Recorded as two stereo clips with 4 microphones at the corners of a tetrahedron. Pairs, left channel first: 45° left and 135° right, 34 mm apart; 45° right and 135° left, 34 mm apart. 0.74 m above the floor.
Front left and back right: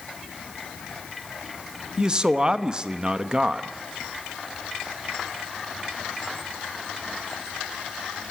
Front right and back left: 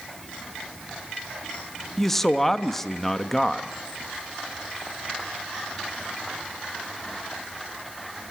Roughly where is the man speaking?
Behind right.